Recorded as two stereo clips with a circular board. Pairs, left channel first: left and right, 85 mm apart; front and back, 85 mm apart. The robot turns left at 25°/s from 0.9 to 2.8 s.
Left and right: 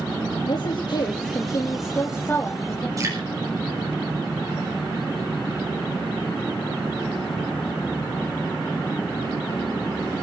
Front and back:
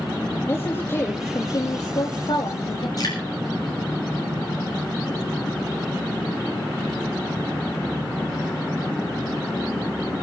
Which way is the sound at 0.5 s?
60° left.